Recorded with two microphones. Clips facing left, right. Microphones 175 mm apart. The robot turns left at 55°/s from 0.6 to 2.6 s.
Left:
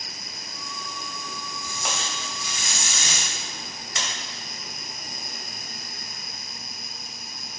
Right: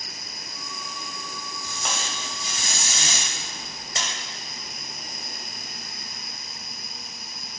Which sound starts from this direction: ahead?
Tape being pulled, at 1.6 s.